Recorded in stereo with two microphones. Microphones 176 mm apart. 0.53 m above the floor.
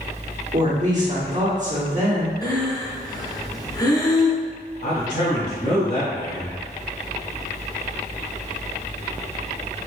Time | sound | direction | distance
0.5 | a woman speaking | 45° right (ahead or behind) | 1.4 m
2.4 | breathing | 20° left (ahead or behind) | 0.5 m
4.8 | a man speaking | 65° left (ahead or behind) | 1.5 m